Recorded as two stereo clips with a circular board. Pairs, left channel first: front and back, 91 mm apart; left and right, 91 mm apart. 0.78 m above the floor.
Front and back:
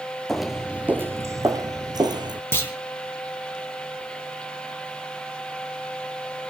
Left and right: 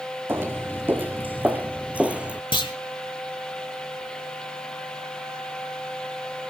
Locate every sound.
0.3 s footsteps: 80° right, 0.8 m; by 2.4 s 165° right, 1.3 m
2.5 s a clunk: 65° left, 2 m